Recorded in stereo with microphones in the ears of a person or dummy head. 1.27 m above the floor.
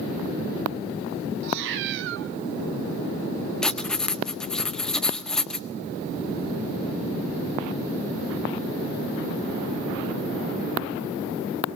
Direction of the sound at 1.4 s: 60° right (ahead or behind).